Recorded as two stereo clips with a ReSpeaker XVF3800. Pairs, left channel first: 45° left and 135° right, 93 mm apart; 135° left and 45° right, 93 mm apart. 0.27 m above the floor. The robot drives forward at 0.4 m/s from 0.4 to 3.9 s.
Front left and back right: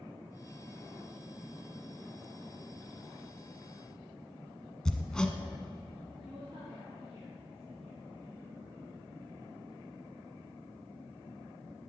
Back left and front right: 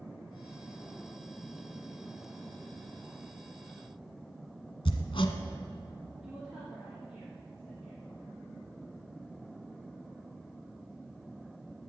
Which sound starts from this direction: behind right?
A woman speaking, at 6.2 s.